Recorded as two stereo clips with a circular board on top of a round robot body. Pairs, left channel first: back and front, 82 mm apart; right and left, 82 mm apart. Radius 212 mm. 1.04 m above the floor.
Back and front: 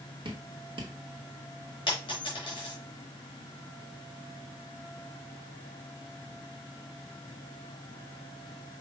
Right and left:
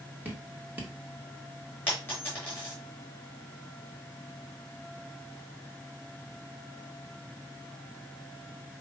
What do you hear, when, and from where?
0.2 s dripping: 20° left, 1.2 m
1.9 s a dropped coin: 160° right, 1.6 m